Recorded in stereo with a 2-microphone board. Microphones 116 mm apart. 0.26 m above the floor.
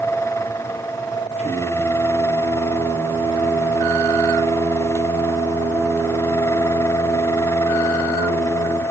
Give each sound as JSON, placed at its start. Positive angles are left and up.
{"t": 1.4, "sound": "singing", "side_deg": -70, "distance_m": 3.5}